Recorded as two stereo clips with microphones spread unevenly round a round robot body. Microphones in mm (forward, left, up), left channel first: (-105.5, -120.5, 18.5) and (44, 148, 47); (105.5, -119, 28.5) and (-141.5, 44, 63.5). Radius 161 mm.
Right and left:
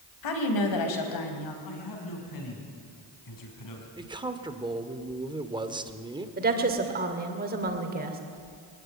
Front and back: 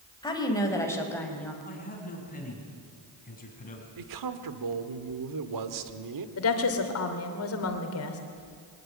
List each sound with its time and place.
0.2 s a woman speaking: 105° right, 3.5 m; by 1.5 s 120° right, 4 m
1.6 s a man speaking: 95° right, 5 m
4.0 s a man speaking: 140° left, 1.7 m
6.4 s a woman speaking: straight ahead, 2.5 m